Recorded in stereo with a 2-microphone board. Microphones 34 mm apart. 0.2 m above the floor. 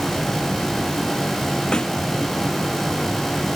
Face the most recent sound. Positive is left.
turn(degrees=30)  # may be behind; listen again after turning